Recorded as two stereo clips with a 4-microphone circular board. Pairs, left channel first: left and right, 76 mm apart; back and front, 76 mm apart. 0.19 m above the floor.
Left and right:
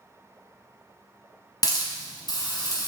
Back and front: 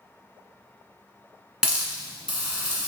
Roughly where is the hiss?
Left.